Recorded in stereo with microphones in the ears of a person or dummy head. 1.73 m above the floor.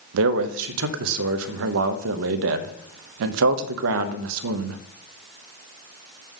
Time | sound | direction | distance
0.1 | a man speaking | 70° right (ahead or behind) | 0.7 m